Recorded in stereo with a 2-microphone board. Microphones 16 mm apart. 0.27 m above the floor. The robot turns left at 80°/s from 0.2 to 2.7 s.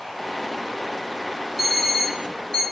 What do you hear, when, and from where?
1.6 s an alarm clock: 5° right (ahead or behind), 0.7 m; by 2.6 s 55° left (ahead or behind), 0.7 m